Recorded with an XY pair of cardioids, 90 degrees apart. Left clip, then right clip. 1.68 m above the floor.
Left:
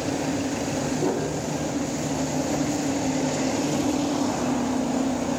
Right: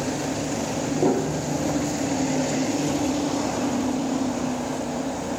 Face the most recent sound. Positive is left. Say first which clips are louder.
# right 3 dB
turn(degrees=-50)